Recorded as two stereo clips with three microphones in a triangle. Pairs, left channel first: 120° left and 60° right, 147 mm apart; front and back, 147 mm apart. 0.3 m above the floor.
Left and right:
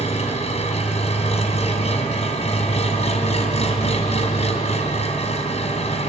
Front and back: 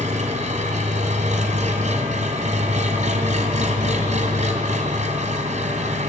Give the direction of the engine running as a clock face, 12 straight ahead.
7 o'clock.